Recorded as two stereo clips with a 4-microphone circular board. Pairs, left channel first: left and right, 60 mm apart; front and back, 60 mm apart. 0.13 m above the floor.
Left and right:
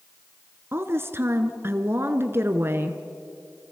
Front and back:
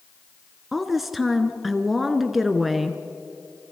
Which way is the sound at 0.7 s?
95° right.